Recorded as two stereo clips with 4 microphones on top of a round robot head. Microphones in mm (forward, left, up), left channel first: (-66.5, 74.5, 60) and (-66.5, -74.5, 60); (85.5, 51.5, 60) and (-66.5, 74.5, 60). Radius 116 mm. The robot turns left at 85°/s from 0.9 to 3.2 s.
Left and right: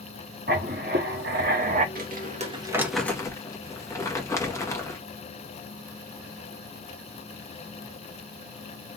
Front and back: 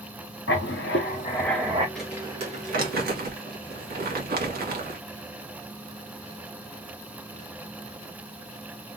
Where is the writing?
40° right, 0.8 m; by 1.9 s 125° right, 0.8 m.